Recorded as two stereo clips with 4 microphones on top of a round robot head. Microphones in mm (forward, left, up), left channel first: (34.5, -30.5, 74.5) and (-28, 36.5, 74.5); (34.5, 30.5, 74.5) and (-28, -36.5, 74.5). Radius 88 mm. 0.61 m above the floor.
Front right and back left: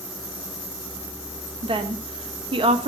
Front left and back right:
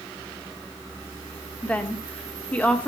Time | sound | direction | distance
1.6 | a woman speaking | 120° left | 1.4 m